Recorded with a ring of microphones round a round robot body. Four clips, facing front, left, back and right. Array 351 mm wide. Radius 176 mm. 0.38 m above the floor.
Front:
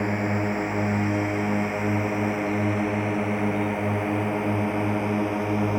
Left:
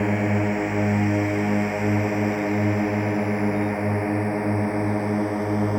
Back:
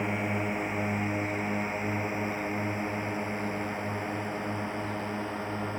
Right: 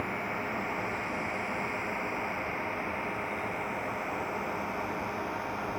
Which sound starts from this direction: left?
A drone, at 0.0 s.